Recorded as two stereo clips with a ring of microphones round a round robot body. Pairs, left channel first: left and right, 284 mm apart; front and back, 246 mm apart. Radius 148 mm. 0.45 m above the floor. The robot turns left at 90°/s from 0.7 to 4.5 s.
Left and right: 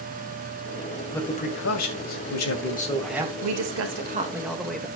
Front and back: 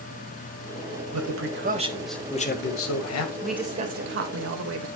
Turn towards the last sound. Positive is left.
turn(degrees=180)